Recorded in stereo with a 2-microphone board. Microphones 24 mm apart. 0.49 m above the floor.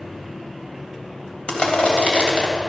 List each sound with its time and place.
1.5 s crushing: 55° left (ahead or behind), 3 m